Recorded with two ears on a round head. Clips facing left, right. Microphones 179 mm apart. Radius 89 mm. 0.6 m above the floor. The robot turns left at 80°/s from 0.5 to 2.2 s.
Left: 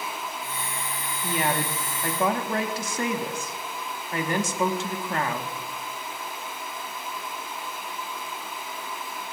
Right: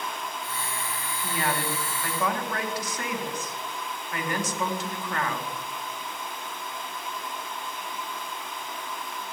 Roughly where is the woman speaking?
Centre.